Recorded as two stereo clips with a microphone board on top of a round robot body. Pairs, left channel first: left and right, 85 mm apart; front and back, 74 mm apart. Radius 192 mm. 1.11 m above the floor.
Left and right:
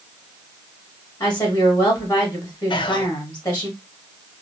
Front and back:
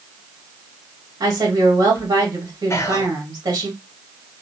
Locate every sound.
1.2 s a woman speaking: 135° left, 1.5 m
2.7 s whispering: 55° left, 0.5 m